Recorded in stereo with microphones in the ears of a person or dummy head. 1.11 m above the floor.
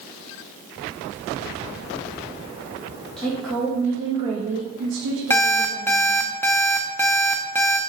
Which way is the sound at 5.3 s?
10° left (ahead or behind).